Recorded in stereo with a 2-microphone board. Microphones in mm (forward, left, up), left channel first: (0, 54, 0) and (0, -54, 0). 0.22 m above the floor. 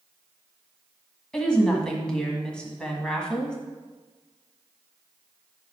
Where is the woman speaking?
5° left (ahead or behind), 1.4 m.